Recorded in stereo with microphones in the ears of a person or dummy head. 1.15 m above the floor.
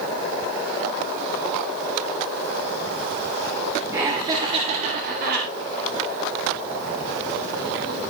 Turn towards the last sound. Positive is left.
turn(degrees=-55)  # may be behind; listen again after turning